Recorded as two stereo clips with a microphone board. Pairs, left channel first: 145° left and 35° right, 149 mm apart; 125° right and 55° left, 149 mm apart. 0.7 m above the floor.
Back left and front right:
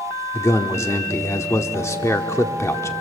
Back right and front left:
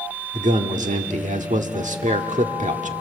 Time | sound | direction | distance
0.3 | a man speaking | 75° left | 1.3 m